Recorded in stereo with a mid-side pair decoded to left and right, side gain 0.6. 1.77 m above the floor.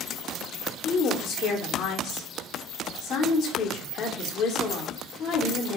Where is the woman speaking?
55° left, 0.9 m.